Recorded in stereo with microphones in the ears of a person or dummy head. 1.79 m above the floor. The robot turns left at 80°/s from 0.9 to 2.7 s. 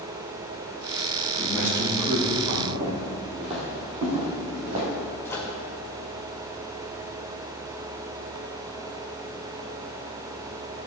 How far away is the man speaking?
About 3 m.